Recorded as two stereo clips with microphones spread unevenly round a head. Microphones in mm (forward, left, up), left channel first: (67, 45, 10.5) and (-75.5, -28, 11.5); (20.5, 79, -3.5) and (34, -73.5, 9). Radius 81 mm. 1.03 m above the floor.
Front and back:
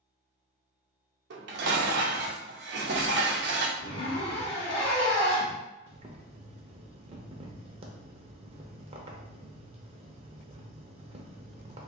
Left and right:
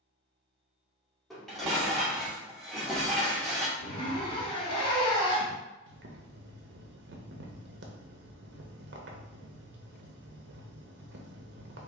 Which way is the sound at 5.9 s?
100° right.